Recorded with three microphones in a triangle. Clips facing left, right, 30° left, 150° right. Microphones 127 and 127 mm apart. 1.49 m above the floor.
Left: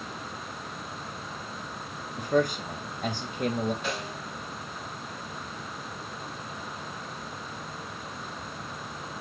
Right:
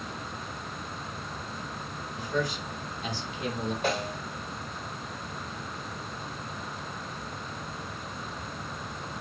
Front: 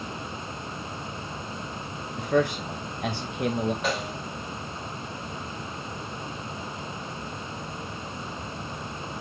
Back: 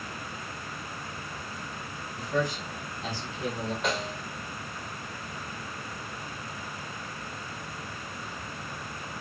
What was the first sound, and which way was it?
A man speaking, 55° left.